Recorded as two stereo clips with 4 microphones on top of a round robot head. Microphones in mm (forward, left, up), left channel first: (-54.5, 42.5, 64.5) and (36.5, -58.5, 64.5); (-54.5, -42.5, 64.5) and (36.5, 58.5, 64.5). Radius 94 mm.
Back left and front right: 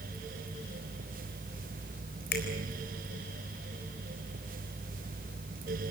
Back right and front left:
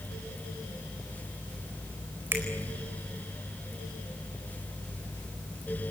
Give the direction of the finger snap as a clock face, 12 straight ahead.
8 o'clock.